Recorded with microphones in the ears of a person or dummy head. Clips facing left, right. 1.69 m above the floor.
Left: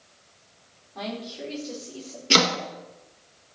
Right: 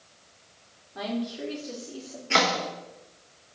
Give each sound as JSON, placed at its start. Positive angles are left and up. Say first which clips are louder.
{"t": 0.9, "sound": "a woman speaking", "louder": "right 3 dB", "side_deg": -15, "distance_m": 5.0}
{"t": 2.3, "sound": "chopping", "louder": "left 2 dB", "side_deg": 50, "distance_m": 1.4}